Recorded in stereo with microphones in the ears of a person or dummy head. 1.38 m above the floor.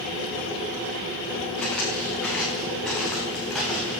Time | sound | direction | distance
1.6 | footsteps | 10° left (ahead or behind) | 9.5 m